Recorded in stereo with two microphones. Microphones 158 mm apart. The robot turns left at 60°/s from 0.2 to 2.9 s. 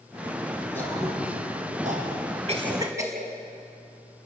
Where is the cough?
45° right (ahead or behind), 5 m; by 3.2 s 20° right (ahead or behind), 5 m.